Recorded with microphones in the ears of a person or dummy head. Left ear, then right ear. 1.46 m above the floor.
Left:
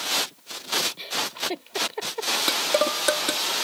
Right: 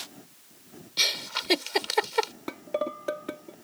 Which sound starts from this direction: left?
Dishes clattering, at 2.5 s.